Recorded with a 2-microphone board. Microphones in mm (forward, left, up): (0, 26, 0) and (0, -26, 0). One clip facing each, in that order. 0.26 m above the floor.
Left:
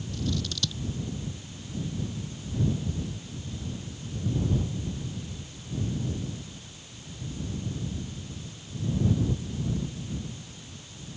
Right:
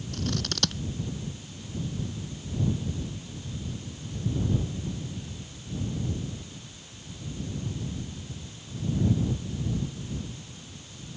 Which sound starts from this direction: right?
Scissors, at 0.1 s.